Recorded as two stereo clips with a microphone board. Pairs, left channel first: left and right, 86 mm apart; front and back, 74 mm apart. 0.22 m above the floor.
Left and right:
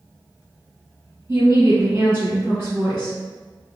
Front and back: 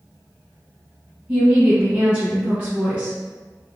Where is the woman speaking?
130° right, 1.9 m.